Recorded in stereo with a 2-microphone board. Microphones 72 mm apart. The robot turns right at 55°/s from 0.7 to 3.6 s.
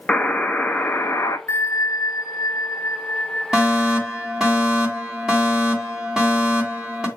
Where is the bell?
45° left, 0.9 m; by 4.5 s 165° left, 0.9 m.